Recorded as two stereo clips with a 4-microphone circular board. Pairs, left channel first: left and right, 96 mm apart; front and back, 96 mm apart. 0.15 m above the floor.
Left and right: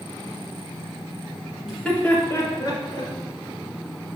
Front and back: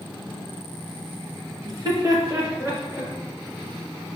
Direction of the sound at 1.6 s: Straight behind.